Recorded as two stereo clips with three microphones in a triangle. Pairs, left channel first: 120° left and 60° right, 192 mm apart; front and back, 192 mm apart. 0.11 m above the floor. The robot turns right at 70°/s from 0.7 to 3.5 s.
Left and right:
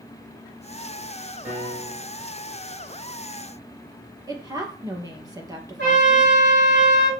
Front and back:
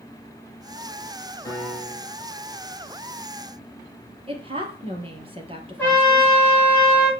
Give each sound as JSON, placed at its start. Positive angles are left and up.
{"t": 1.4, "sound": "a piano", "azimuth_deg": 70, "distance_m": 3.5}
{"t": 4.3, "sound": "a woman speaking", "azimuth_deg": -125, "distance_m": 2.5}
{"t": 5.8, "sound": "a trumpet", "azimuth_deg": -80, "distance_m": 6.0}